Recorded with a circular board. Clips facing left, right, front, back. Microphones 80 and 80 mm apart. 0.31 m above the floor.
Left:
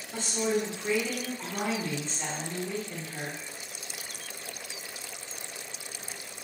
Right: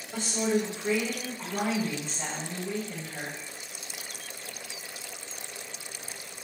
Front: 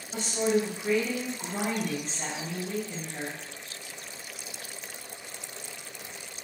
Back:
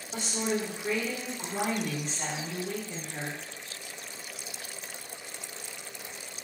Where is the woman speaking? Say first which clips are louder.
Right 1 dB, front 5 dB; 100° right, 1.5 m.